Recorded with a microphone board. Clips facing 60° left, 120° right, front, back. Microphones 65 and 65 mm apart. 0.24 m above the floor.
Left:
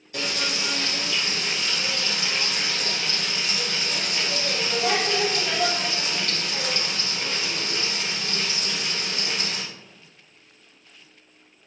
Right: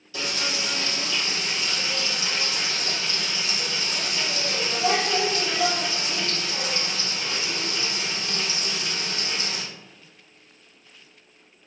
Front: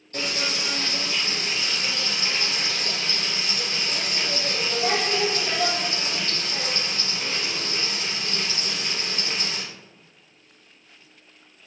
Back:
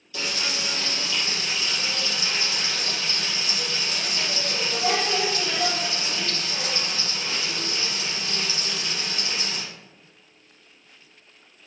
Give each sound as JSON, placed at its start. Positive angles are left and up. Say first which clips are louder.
{"t": 0.1, "sound": "frying", "louder": "left 1 dB, front 2 dB", "azimuth_deg": 35, "distance_m": 3.0}